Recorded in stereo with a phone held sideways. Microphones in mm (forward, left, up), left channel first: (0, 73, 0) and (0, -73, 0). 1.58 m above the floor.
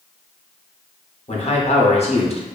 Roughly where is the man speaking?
Left.